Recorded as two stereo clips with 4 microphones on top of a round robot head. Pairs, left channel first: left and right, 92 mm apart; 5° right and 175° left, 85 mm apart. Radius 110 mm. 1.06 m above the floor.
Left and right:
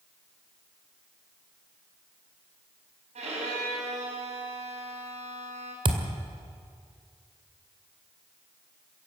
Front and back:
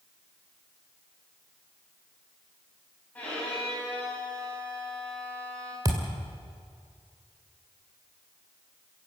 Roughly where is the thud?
Behind right.